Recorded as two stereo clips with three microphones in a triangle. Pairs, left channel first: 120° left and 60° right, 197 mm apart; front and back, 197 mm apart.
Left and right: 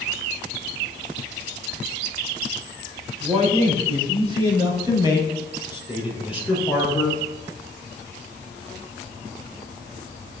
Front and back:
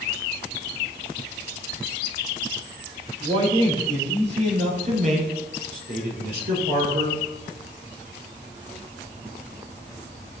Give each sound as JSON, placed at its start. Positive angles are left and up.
{"t": 3.2, "sound": "a man speaking", "azimuth_deg": -115, "distance_m": 5.0}